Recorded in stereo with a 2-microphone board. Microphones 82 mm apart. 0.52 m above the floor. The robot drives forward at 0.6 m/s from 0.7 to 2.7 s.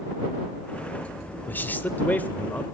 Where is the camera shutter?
I don't hear a camera shutter.